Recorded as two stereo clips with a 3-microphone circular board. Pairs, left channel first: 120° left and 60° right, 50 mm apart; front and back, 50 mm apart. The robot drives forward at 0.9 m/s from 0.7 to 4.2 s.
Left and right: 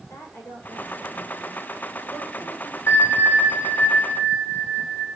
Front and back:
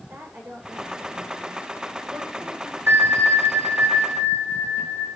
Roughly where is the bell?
Behind left.